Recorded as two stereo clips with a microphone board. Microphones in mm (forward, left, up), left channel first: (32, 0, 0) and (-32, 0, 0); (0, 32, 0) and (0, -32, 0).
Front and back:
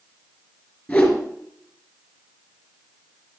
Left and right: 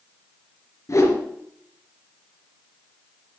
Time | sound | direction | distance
0.9 | a whoosh | 60° left | 2.5 m